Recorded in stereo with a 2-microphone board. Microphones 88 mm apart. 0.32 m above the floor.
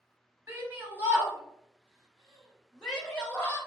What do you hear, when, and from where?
0.5 s a shout: 30° right (ahead or behind), 1.5 m; by 3.6 s 20° left (ahead or behind), 1.3 m